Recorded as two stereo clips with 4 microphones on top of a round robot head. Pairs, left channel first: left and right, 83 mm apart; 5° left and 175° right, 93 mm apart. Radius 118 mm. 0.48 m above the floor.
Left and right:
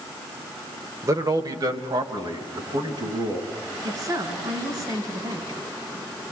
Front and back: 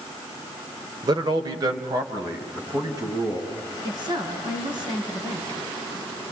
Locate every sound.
1.0 s a man speaking: 135° right, 2 m; by 3.5 s 120° right, 5.5 m
3.8 s a woman speaking: 130° right, 5 m